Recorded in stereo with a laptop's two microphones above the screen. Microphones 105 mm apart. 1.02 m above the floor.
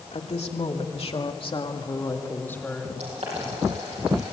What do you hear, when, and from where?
0.1 s a woman speaking: 80° left, 2.5 m; by 2.9 s 10° left (ahead or behind), 1.9 m
3.0 s boiling: 75° right (ahead or behind), 8.5 m